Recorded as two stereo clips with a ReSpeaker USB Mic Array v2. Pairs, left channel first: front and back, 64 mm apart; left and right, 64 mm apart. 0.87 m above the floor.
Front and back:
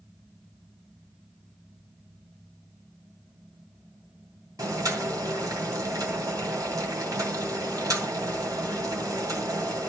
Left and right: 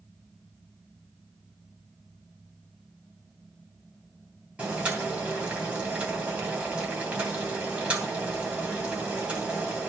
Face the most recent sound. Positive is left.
turn(degrees=-160)